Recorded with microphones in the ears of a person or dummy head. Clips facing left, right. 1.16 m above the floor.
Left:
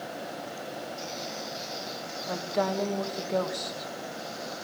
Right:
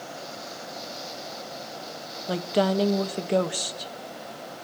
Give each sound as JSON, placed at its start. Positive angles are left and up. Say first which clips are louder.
{"t": 2.3, "sound": "a woman speaking", "louder": "right 5 dB", "side_deg": -40, "distance_m": 1.0}